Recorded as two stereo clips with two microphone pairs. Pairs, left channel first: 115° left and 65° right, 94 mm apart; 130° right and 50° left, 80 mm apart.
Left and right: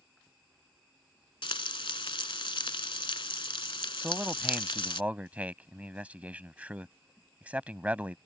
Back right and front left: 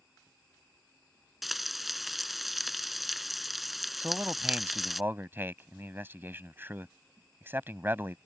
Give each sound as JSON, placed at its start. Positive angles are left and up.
{"t": 1.4, "sound": "frying", "azimuth_deg": 135}
{"t": 4.0, "sound": "a man speaking", "azimuth_deg": 5}